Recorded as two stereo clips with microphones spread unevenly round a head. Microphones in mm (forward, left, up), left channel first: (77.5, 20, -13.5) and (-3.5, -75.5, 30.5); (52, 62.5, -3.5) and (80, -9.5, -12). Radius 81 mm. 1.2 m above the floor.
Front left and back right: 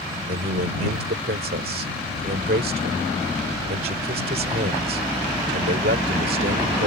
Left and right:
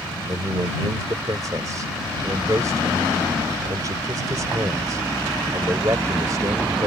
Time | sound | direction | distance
0.3 | a man speaking | 140° right | ?